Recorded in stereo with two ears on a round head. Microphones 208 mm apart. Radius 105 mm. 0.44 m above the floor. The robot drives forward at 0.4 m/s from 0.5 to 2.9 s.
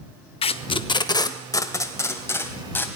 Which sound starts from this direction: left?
Tape being pulled, at 0.4 s.